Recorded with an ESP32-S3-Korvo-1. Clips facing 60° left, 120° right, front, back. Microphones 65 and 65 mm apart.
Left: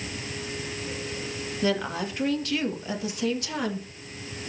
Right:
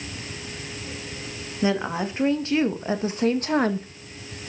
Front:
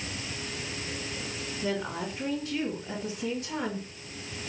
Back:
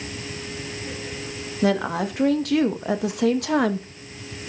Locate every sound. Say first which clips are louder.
1.6 s a woman speaking: right 3 dB, back 10 dB; 170° left, 2 m; by 3.9 s 160° right, 1.5 m